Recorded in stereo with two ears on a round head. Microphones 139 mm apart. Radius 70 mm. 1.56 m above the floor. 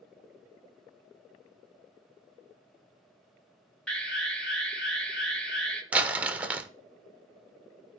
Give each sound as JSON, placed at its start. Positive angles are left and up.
{"t": 3.9, "sound": "an alarm", "side_deg": 5, "distance_m": 1.4}
{"t": 5.9, "sound": "crumpling", "side_deg": -10, "distance_m": 0.6}